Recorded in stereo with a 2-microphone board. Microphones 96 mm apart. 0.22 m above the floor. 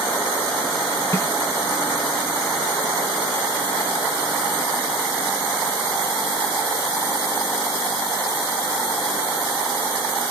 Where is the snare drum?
30° left (ahead or behind), 0.8 m.